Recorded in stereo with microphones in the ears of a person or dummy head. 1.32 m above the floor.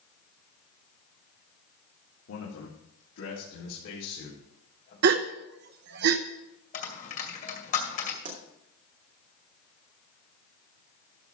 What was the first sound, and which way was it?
A man speaking, 80° left.